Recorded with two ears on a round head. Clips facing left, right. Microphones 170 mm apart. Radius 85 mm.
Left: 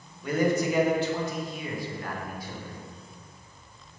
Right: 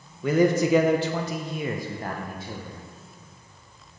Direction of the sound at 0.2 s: 60° right (ahead or behind).